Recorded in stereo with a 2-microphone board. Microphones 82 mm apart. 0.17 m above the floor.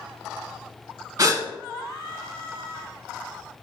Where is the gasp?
45° right (ahead or behind), 0.6 m.